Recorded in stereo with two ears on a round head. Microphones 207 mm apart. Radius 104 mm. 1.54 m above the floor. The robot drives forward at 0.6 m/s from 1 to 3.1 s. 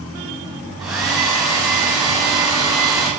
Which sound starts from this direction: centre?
A hair dryer, at 0.8 s.